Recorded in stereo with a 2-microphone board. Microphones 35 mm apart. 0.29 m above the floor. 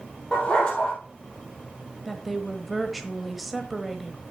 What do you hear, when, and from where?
0.3 s a dog barking: 30° left (ahead or behind), 3 m
2.0 s a woman speaking: 5° right (ahead or behind), 1.3 m